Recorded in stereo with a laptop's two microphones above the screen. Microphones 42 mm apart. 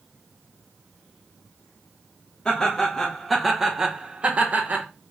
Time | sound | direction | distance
2.5 | laughter | 20° left (ahead or behind) | 1.1 m